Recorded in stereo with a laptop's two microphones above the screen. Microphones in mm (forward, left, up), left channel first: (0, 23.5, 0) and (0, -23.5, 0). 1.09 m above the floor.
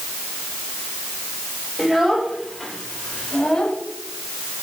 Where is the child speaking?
10° right (ahead or behind), 3.5 m; by 3.8 s 15° left (ahead or behind), 4 m.